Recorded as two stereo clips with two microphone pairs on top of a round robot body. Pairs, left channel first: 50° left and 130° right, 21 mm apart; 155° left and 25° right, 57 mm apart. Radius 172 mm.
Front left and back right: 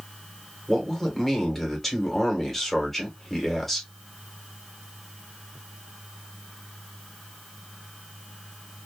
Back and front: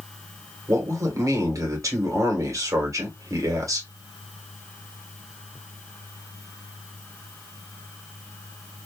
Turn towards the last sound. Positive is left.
turn(degrees=-30)